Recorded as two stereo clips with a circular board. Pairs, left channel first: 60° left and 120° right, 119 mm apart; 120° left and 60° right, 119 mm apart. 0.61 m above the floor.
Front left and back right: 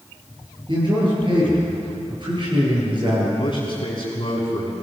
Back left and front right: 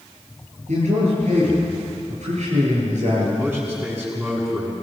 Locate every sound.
0.7 s a man speaking: 75° right, 10 m
3.4 s a man speaking: 10° left, 6.5 m